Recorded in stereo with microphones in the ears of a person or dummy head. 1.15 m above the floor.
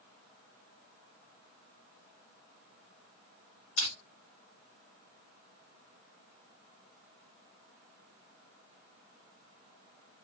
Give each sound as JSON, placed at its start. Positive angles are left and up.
{"t": 3.8, "sound": "crushing", "side_deg": 65, "distance_m": 2.0}